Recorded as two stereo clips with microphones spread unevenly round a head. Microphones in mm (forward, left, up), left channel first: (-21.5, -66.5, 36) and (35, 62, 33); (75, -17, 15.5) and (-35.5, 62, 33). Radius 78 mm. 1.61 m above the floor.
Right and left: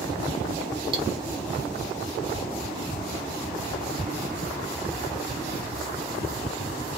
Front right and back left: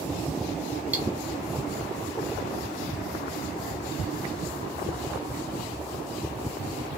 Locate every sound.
0.9 s cutlery clinking: 95° left, 0.7 m